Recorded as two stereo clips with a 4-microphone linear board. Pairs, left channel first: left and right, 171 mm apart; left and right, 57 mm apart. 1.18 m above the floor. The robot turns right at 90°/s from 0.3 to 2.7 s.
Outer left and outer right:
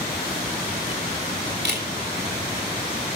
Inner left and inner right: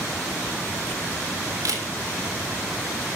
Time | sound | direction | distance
1.6 | a camera shutter | 80° right | 4 m